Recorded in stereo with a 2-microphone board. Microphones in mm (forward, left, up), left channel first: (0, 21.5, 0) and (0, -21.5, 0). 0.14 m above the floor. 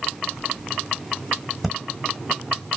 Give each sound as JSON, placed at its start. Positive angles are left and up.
{"t": 1.6, "sound": "breathing", "side_deg": -5, "distance_m": 1.1}